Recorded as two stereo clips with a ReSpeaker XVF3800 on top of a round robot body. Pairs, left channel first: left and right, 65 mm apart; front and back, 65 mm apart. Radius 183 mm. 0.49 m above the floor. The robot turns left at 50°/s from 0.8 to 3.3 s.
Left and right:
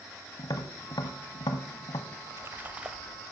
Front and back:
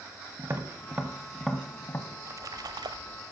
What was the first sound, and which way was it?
Tapping, 120° left.